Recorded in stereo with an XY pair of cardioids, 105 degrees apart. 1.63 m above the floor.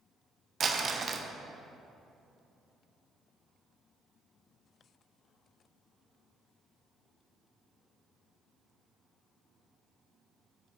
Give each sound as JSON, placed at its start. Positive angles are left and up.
{"t": 0.6, "sound": "crumpling", "azimuth_deg": -40, "distance_m": 0.7}